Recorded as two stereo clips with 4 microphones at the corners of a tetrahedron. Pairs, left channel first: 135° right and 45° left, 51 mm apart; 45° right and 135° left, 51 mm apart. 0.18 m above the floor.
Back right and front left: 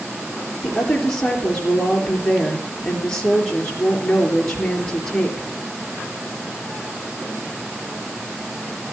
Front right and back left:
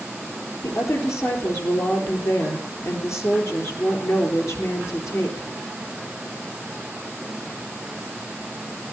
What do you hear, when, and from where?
0.6 s a woman speaking: 60° right, 3.5 m